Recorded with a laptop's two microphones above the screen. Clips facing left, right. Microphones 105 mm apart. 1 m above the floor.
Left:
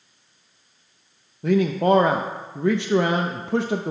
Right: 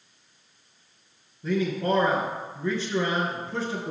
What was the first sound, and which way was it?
A man speaking, 65° left (ahead or behind).